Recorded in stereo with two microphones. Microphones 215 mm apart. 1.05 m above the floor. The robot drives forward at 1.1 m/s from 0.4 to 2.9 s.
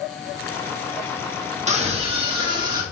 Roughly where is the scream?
Right.